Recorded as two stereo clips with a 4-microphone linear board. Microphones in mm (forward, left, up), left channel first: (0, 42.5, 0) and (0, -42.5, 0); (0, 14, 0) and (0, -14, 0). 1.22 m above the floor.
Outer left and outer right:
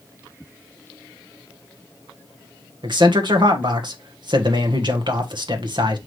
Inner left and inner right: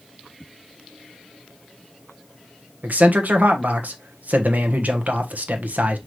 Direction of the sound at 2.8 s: 55° right (ahead or behind).